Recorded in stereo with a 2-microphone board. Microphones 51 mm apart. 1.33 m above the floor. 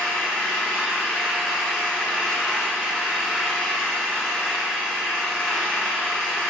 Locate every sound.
0.0 s an engine running: 15° right (ahead or behind), 3.5 m